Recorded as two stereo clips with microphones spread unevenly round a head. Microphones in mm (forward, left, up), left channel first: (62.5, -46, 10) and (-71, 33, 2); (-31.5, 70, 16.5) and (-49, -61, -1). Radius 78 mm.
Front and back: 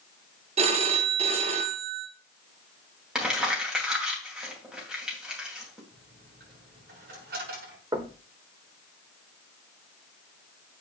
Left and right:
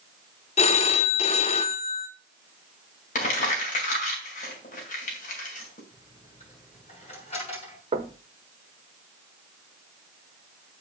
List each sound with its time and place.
0.6 s a phone ringing: 100° left, 1.0 m
3.1 s crumpling: 65° left, 2.5 m
5.9 s a dropped coin: 120° left, 6.5 m
7.9 s knocking: 140° right, 1.4 m